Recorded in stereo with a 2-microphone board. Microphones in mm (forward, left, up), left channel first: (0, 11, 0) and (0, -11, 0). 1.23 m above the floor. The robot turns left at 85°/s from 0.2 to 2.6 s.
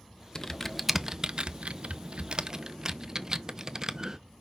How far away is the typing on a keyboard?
About 0.5 m.